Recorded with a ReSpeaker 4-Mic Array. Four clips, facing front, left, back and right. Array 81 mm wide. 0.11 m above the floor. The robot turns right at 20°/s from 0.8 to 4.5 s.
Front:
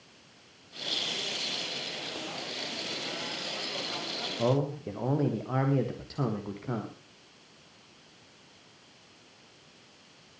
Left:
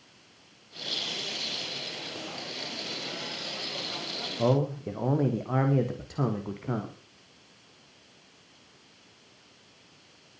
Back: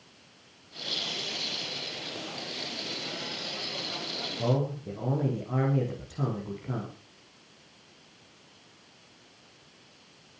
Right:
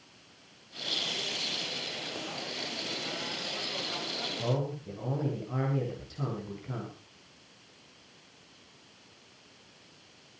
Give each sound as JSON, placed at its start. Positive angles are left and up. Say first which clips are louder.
{"t": 4.4, "sound": "a man speaking", "louder": "left 8 dB, front 1 dB", "azimuth_deg": 65, "distance_m": 5.0}